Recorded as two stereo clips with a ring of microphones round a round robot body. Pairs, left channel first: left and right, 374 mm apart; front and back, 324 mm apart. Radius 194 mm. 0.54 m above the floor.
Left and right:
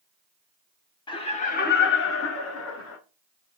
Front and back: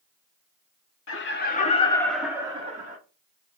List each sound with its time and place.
1.1 s laughter: 20° left, 1.1 m; by 3.0 s 125° left, 1.3 m